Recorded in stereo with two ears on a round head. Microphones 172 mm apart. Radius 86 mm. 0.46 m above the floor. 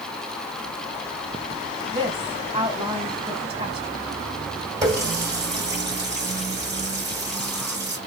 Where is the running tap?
20° right (ahead or behind), 2 m.